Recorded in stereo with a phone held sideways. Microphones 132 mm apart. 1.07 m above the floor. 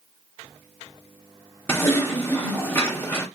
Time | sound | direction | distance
1.7 | typing on a keyboard | 20° left (ahead or behind) | 0.8 m